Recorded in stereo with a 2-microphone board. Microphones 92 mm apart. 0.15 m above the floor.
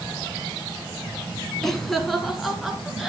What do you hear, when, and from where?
1.6 s laughter: 5° left (ahead or behind), 1.2 m; by 3.1 s centre (ahead or behind), 1.9 m